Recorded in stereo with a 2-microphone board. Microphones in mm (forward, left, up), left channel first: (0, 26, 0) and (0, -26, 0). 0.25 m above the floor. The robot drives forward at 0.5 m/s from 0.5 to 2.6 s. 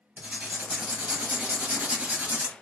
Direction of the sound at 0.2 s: 25° right (ahead or behind).